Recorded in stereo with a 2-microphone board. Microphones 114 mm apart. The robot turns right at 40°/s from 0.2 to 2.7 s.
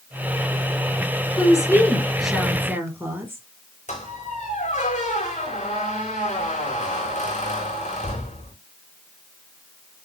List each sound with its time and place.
1.4 s a woman speaking: 145° left, 4 m; by 3.4 s 160° right, 4 m
3.9 s a squeak: 85° left, 3.5 m